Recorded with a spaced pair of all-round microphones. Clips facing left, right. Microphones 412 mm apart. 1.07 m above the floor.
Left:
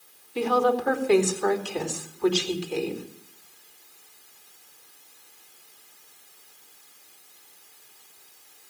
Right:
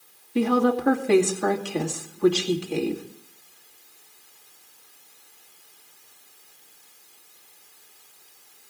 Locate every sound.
0.3 s a woman speaking: 70° right (ahead or behind), 2.5 m